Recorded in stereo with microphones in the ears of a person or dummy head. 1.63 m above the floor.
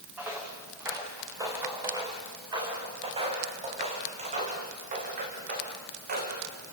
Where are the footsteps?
10° right (ahead or behind), 5.5 m; by 6.4 s 55° right (ahead or behind), 5 m.